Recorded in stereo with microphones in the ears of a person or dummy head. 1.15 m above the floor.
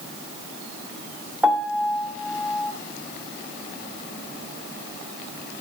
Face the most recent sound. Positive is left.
turn(degrees=-5)  # may be behind; listen again after turning